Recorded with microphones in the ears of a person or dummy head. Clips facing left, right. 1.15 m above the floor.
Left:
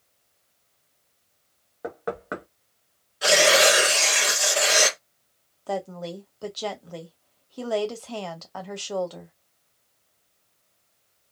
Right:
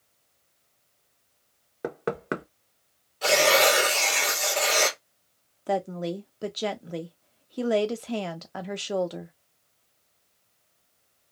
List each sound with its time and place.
1.8 s knocking: 35° right (ahead or behind), 1.0 m
3.2 s tearing paper: 10° left (ahead or behind), 1.4 m
5.7 s a woman speaking: 25° right (ahead or behind), 0.6 m